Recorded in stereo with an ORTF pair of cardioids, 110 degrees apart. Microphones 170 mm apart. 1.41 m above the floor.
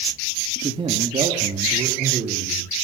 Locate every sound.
0.6 s a man speaking: 30° right, 3 m; by 2.9 s 40° right, 5.5 m